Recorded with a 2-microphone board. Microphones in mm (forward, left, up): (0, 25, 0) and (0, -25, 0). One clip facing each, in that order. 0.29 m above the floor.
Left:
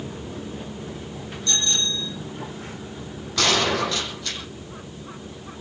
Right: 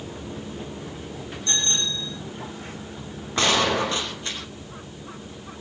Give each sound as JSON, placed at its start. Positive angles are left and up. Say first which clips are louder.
{"t": 1.5, "sound": "a bicycle bell", "louder": "left 2 dB", "side_deg": -35, "distance_m": 8.5}
{"t": 3.4, "sound": "a gunshot", "louder": "even", "side_deg": -30, "distance_m": 8.5}